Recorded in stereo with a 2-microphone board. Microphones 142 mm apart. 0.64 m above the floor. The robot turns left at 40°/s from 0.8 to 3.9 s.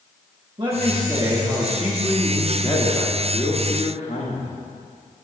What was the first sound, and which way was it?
A man speaking, 130° right.